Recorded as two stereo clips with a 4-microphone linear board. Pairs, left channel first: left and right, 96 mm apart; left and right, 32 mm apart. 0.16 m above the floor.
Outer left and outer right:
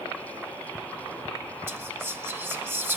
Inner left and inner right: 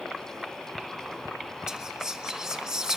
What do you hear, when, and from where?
1.7 s whispering: 25° right (ahead or behind), 1.5 m